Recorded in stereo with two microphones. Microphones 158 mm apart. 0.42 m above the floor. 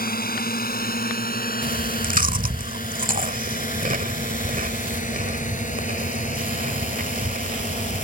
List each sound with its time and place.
0.0 s a drone: 75° left (ahead or behind); by 8.1 s 50° left (ahead or behind)
1.6 s chewing: 60° right (ahead or behind)